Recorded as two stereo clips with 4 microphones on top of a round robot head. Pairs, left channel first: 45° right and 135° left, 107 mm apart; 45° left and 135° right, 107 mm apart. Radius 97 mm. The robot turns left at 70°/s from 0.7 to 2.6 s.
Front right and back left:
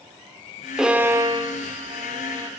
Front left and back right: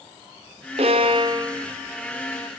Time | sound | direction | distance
0.8 | a violin | 140° right | 1.4 m